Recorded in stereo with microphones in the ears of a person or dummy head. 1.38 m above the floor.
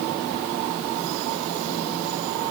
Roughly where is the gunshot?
I don't hear a gunshot.